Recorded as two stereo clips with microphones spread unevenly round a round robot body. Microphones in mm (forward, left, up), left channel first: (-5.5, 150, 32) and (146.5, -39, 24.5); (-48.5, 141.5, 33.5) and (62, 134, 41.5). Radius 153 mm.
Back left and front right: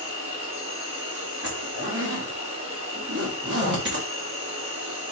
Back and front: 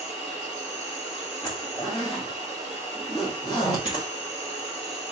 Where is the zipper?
110° right, 0.6 m.